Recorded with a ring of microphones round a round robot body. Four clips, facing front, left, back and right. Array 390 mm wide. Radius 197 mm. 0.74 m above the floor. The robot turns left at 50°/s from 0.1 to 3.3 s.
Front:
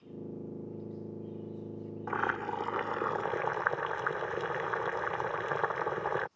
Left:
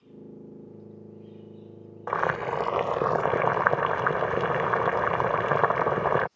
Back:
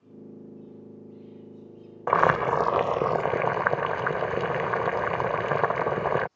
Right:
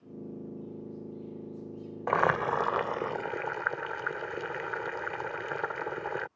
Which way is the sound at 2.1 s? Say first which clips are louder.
Even, back 12 dB; 170° right.